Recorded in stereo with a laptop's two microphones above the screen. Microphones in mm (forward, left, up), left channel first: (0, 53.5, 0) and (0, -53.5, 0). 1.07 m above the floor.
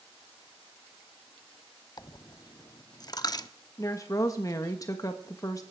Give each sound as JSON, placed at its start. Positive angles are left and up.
{"t": 2.0, "sound": "a dropped coin", "side_deg": 40, "distance_m": 0.8}
{"t": 3.8, "sound": "a woman speaking", "side_deg": 30, "distance_m": 1.4}